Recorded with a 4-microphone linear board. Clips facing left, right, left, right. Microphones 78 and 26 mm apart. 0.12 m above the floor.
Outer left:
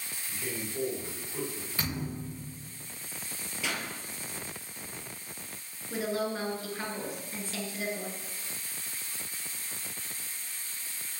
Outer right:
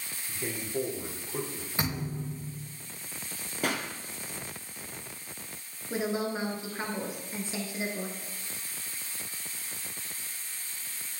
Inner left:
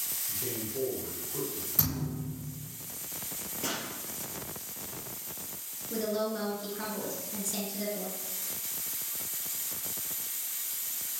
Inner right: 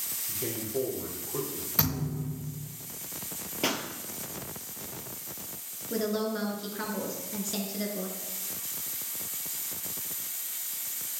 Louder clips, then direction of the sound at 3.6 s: Outer right 4 dB, inner right 6 dB; 50° right (ahead or behind).